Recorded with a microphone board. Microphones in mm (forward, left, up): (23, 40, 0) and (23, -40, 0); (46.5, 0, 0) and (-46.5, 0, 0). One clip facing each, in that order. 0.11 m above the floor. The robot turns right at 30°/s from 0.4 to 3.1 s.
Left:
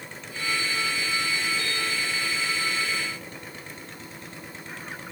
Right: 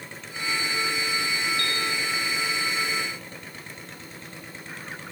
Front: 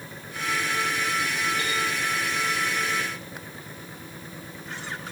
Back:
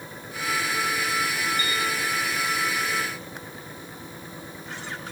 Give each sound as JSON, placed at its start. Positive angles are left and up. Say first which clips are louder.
{"t": 1.6, "sound": "a piano", "louder": "right 1 dB, even", "azimuth_deg": 10, "distance_m": 3.5}